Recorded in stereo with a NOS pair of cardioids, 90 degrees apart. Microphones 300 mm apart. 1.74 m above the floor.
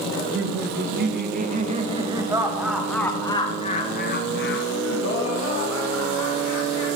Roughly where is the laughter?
Ahead right.